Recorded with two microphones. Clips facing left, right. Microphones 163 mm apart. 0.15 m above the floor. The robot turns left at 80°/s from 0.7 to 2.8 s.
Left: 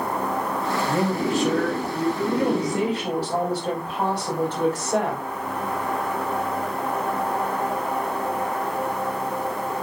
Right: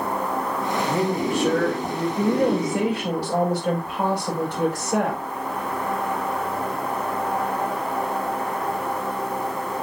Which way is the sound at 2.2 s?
120° right.